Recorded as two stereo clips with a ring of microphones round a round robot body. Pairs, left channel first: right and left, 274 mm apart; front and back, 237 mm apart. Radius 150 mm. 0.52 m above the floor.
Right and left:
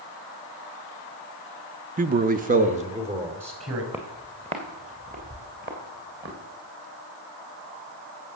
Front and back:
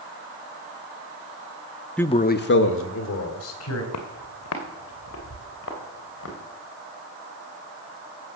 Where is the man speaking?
80° left, 0.7 m; by 3.8 s 20° left, 3 m.